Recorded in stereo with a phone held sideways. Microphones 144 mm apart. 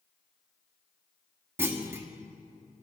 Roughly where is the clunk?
Centre.